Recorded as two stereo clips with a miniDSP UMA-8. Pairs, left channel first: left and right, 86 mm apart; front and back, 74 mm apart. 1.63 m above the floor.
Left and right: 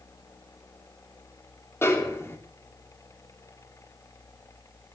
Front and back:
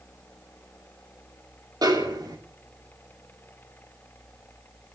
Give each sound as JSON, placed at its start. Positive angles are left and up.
{"t": 1.8, "sound": "a snare drum", "azimuth_deg": 150, "distance_m": 2.5}